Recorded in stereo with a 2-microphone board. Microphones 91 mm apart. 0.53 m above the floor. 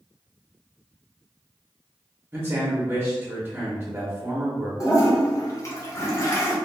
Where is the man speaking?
20° right (ahead or behind), 0.7 m.